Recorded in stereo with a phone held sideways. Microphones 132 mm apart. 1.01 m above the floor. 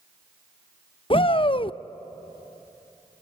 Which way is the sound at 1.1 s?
40° left (ahead or behind).